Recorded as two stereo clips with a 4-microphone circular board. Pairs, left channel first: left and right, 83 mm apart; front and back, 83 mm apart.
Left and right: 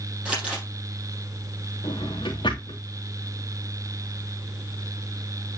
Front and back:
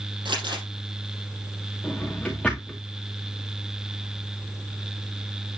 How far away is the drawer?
About 3 m.